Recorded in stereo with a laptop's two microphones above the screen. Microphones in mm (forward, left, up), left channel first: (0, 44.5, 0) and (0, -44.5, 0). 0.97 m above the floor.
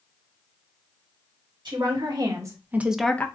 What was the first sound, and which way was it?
A woman speaking, 55° right (ahead or behind).